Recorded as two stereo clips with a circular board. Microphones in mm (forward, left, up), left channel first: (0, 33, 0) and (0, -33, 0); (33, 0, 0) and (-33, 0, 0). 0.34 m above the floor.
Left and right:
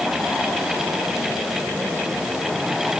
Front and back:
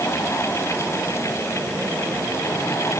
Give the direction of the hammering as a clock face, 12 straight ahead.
I don't hear hammering.